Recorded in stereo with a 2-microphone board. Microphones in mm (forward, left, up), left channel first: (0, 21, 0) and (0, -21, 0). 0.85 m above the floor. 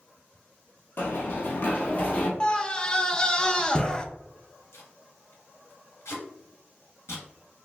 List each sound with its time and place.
1.0 s running footsteps: 55° left (ahead or behind), 1.3 m; by 2.3 s 30° left (ahead or behind), 1.2 m
2.4 s a scream: 20° left (ahead or behind), 0.5 m
4.7 s tape being pulled: 70° left (ahead or behind), 2.0 m